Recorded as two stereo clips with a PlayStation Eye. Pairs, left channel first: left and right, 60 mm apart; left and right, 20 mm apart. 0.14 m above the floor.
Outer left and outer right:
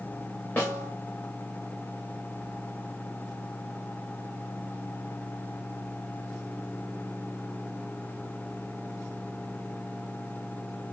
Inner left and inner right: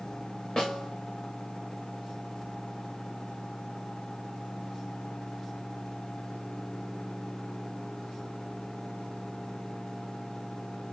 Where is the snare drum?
35° left (ahead or behind), 4 m.